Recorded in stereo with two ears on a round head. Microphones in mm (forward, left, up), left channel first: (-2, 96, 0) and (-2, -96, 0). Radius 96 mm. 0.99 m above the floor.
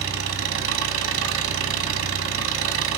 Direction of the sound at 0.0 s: 70° right (ahead or behind).